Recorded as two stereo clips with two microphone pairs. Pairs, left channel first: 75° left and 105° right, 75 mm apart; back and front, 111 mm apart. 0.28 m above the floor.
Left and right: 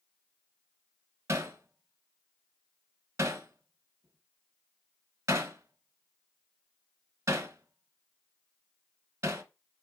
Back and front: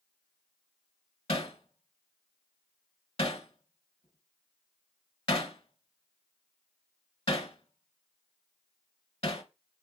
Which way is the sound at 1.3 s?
160° right.